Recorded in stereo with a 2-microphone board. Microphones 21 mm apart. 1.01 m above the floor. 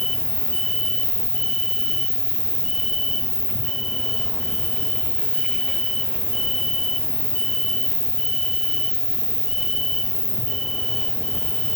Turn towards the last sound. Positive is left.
turn(degrees=20)  # may be behind; listen again after turning